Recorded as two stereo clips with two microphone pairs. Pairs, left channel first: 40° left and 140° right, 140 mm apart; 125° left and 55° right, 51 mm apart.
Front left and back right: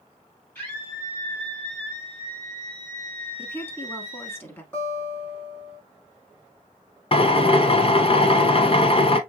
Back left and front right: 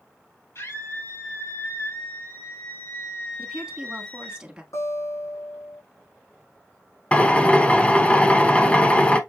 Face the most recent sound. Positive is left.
turn(degrees=70)